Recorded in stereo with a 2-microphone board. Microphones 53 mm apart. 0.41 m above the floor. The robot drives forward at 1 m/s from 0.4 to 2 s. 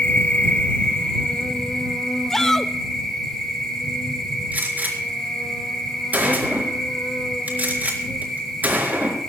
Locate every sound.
0.0 s an insect: 25° left (ahead or behind), 1.5 m; by 9.3 s 10° left (ahead or behind), 3 m
2.3 s a shout: 5° left (ahead or behind), 0.8 m
4.5 s a gunshot: 35° right (ahead or behind), 4 m